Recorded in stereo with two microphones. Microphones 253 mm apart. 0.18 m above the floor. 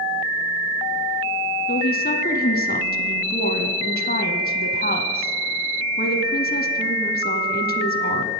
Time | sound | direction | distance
1.7 | a woman speaking | 40° left (ahead or behind) | 1.5 m